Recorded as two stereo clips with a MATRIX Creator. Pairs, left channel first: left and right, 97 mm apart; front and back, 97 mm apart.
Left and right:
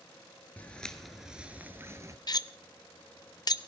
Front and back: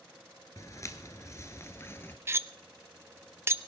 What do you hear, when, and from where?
0.6 s footsteps: 30° left, 1.4 m; by 2.2 s 55° right, 1.5 m
2.3 s cutlery clinking: 120° left, 0.5 m